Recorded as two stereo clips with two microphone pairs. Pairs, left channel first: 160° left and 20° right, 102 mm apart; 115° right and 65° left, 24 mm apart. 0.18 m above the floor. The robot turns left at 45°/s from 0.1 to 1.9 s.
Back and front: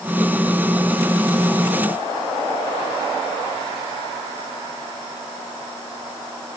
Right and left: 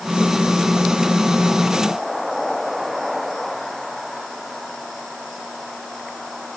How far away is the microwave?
No microwave in this recording.